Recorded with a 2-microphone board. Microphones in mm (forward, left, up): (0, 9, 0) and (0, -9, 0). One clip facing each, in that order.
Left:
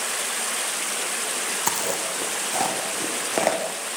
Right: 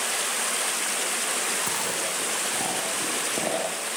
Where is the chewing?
55° left (ahead or behind), 5 m.